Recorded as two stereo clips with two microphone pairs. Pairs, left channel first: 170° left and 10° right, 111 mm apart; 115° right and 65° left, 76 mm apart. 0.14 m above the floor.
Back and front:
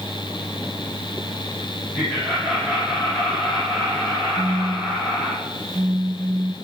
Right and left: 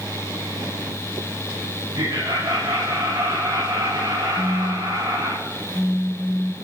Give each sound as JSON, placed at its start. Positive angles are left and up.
{"t": 1.9, "sound": "laughter", "azimuth_deg": 80, "distance_m": 9.0}
{"t": 4.4, "sound": "a phone buzzing", "azimuth_deg": -85, "distance_m": 0.9}